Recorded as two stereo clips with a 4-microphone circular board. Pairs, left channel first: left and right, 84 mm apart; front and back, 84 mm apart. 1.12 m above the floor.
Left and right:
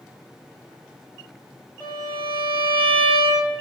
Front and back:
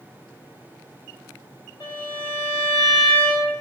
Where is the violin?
25° left, 1.7 m.